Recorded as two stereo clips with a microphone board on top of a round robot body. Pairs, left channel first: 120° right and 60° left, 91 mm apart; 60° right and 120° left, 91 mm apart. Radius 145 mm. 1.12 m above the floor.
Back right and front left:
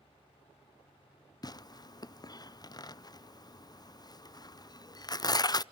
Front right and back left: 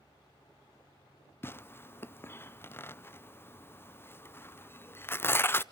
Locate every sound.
1.4 s tearing paper: 115° right, 0.7 m